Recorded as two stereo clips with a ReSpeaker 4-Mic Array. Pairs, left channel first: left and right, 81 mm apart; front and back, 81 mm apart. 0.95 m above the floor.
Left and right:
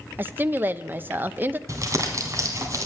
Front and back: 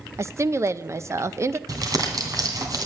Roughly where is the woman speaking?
Behind right.